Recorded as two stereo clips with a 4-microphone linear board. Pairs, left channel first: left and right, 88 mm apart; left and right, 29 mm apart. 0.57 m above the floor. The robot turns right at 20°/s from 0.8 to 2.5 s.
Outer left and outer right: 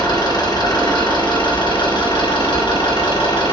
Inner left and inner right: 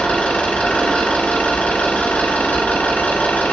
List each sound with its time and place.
0.0 s an engine running: 45° left, 2.5 m; by 3.5 s 80° left, 2.5 m